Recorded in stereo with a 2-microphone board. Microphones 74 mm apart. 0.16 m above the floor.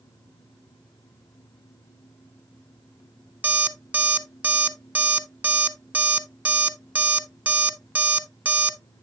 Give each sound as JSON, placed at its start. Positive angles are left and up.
{"t": 3.4, "sound": "an alarm clock", "side_deg": -20, "distance_m": 0.8}